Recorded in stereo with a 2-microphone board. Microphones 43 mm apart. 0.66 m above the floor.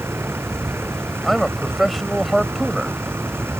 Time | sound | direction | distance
0.0 | a vehicle | 70° right (ahead or behind) | ?
1.2 | a man speaking | 5° right (ahead or behind) | ?